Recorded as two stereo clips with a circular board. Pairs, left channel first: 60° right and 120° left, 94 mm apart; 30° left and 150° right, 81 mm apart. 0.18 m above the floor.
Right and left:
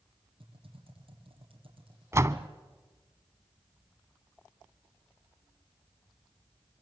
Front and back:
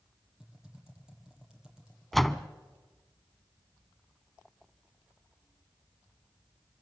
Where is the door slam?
115° left, 0.8 m.